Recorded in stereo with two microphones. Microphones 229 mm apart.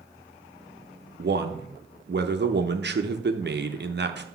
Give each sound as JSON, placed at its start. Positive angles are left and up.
{"t": 1.2, "sound": "a man speaking", "side_deg": -50, "distance_m": 0.7}